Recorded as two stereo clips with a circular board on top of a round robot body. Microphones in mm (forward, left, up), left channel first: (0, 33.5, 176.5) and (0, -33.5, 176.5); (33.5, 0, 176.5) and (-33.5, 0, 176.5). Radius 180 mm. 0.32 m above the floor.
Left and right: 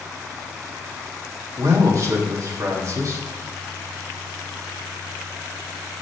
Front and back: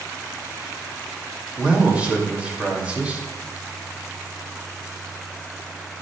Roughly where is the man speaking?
Right.